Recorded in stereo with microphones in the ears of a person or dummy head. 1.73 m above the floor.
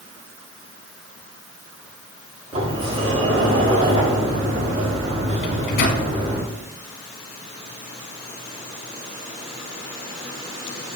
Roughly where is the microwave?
Left.